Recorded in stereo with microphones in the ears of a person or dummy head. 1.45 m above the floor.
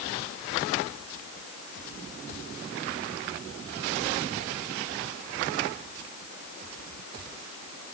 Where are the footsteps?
No footsteps in this recording.